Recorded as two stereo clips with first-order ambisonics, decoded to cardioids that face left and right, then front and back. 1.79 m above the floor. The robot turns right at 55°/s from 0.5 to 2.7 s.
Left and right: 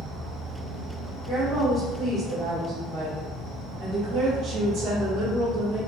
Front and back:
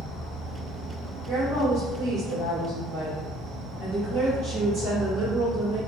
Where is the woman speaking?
150° left, 1.4 m; by 5.8 s 130° right, 1.4 m.